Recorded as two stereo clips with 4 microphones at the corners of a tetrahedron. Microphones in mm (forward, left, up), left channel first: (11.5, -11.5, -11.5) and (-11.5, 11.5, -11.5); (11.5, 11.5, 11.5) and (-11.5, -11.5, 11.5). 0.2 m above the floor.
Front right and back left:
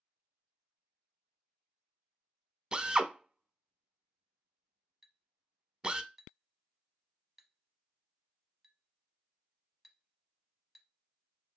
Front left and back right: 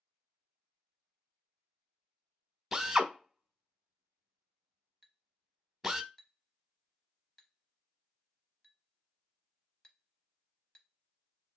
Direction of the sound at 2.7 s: 165° left.